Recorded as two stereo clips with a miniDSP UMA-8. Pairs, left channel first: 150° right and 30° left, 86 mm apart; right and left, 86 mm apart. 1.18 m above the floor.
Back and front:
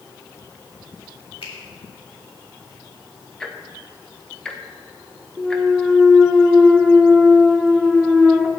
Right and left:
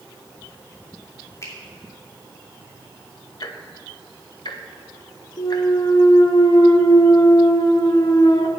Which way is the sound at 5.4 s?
60° right.